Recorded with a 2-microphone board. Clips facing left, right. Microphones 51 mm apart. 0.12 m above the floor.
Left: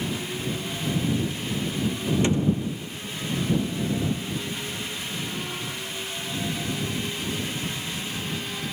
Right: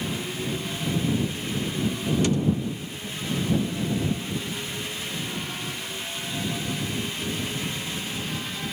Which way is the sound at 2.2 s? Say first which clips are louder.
Left 1 dB; 25° left (ahead or behind).